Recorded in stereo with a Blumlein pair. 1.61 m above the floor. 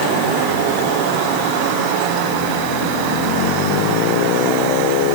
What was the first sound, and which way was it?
Only background noise.